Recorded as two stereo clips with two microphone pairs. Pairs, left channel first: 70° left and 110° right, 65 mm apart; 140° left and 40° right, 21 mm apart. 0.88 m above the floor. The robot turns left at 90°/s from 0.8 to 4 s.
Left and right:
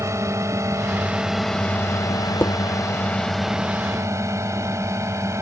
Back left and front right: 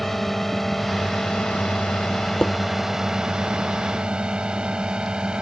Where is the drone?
145° right; by 5.4 s 70° right.